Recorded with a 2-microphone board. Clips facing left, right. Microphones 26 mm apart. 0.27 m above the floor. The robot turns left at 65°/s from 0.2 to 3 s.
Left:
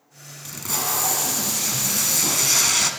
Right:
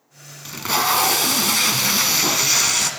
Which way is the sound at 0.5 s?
25° right.